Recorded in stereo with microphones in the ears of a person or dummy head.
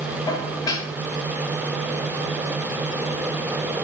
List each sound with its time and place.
0.3 s dishes clattering: 20° left (ahead or behind), 3 m